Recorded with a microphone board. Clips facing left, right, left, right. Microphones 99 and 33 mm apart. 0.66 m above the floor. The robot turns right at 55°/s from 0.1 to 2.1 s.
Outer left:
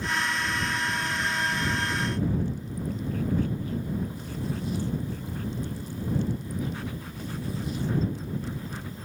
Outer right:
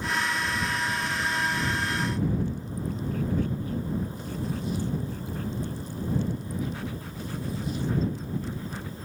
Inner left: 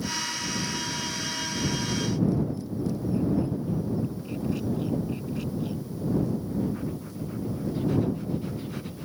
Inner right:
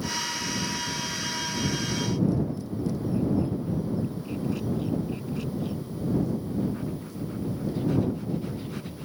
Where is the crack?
No crack in this recording.